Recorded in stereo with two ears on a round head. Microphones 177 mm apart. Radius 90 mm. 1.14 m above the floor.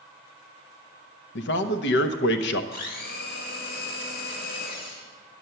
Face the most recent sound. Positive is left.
turn(degrees=50)  # may be behind; listen again after turning